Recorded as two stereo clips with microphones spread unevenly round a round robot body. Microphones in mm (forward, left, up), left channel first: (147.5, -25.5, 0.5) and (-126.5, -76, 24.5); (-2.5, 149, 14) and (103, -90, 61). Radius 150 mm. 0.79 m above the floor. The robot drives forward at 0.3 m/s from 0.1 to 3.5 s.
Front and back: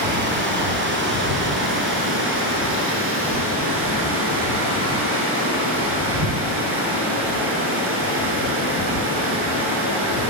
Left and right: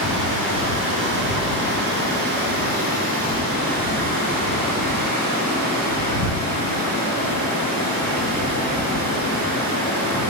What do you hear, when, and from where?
0.0 s running water: 120° right, 5 m; by 10.3 s 125° right, 5.5 m